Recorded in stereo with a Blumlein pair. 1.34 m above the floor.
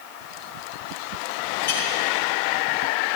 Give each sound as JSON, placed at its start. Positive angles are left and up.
{"t": 1.6, "sound": "a clink", "azimuth_deg": 60, "distance_m": 4.5}